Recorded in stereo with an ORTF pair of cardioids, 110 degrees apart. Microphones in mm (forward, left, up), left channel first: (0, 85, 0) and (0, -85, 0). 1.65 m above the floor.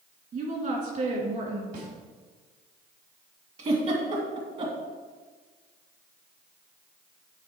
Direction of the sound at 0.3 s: 50° right.